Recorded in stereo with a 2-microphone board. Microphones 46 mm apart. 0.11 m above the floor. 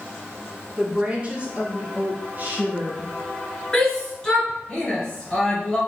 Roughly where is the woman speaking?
Right.